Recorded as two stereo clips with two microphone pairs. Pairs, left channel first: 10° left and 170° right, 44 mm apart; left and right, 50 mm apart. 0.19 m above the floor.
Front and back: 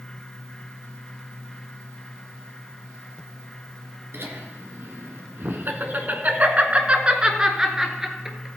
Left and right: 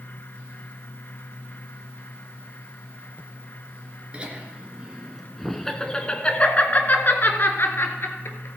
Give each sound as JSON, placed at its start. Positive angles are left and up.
{"t": 4.1, "sound": "laughter", "azimuth_deg": -155, "distance_m": 2.5}